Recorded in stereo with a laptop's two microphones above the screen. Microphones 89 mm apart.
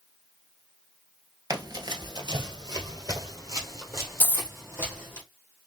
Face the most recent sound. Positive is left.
turn(degrees=20)  # may be behind; listen again after turning